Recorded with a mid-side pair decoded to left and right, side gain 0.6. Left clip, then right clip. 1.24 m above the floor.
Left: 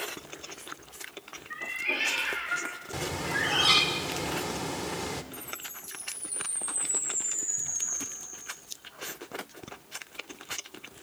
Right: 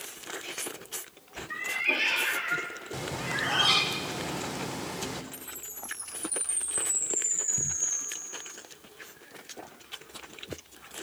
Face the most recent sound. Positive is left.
turn(degrees=-30)